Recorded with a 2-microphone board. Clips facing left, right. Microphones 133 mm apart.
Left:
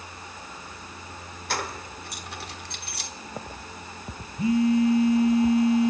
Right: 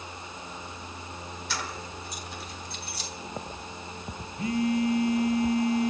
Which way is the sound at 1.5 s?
55° left (ahead or behind).